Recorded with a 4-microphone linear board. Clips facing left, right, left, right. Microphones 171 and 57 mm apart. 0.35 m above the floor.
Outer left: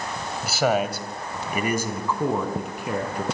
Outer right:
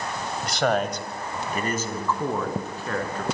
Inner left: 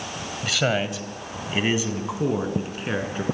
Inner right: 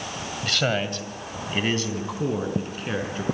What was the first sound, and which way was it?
A man speaking, 5° left (ahead or behind).